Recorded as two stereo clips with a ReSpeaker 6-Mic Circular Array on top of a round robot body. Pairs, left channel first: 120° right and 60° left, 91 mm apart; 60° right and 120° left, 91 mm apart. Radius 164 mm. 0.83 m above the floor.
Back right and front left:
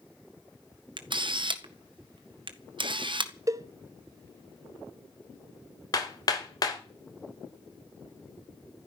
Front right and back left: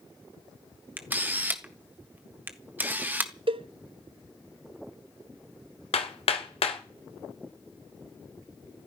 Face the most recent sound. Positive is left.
turn(degrees=-70)